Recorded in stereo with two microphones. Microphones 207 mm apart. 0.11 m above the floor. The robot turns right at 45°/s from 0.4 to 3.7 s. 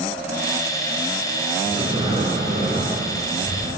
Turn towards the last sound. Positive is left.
turn(degrees=-60)